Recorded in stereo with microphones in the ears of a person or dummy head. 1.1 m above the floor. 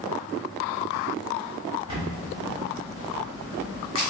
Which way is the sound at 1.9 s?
35° right (ahead or behind).